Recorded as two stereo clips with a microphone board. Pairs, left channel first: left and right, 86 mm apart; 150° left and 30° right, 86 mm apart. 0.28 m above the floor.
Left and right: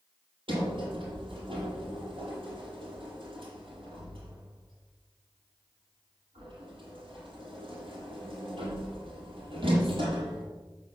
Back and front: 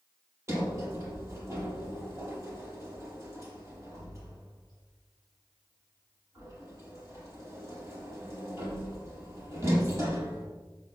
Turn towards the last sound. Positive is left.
turn(degrees=-85)